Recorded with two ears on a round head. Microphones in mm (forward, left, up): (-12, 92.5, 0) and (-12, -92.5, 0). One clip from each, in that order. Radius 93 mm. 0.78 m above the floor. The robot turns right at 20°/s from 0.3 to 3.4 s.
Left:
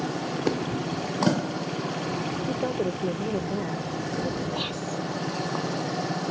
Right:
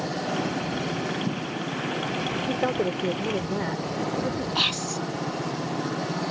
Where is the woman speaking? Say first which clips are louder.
Right 2 dB; 55° right (ahead or behind); by 4.5 s 40° right (ahead or behind).